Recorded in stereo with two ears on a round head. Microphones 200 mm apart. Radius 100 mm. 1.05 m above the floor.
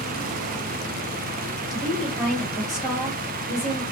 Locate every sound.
1.7 s a woman speaking: centre (ahead or behind), 1.4 m